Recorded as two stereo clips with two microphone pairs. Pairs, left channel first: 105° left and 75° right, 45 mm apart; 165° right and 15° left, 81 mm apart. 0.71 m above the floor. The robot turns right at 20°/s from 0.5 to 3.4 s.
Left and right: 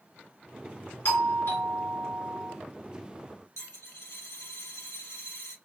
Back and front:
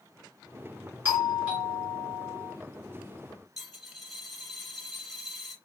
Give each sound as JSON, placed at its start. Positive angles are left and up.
{"t": 1.1, "sound": "a doorbell", "azimuth_deg": 80, "distance_m": 2.0}
{"t": 3.6, "sound": "a dropped coin", "azimuth_deg": 105, "distance_m": 3.5}